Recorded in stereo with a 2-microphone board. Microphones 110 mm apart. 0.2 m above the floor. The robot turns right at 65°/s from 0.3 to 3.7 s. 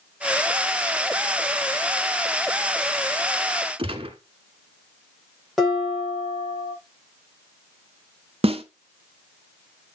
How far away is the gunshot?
About 1.4 m.